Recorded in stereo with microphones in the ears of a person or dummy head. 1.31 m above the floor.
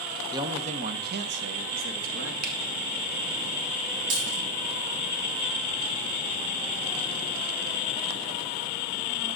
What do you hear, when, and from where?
0.3 s a man speaking: 20° right (ahead or behind), 0.7 m; by 2.3 s 80° right, 1.6 m
2.4 s a finger snap: 50° right (ahead or behind), 1.8 m
4.1 s a dropped coin: 45° right (ahead or behind), 5 m